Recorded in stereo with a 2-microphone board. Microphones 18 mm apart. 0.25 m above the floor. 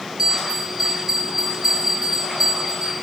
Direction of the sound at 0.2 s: 25° right (ahead or behind).